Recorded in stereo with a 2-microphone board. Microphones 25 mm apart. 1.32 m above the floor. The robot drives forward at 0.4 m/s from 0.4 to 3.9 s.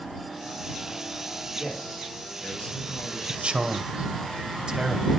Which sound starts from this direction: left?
A man speaking, at 1.6 s.